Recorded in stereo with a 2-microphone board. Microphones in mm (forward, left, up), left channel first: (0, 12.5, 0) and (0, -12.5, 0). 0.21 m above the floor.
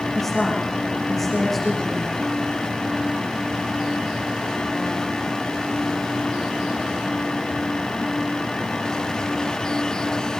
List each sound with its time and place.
0.1 s a woman speaking: 5° left (ahead or behind), 8 m